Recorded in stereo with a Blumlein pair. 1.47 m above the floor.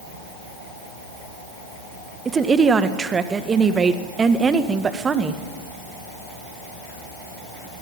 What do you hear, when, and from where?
2.2 s a woman speaking: 20° right, 1.6 m